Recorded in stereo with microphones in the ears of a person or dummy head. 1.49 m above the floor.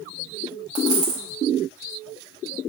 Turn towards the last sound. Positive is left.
turn(degrees=-30)  # may be behind; listen again after turning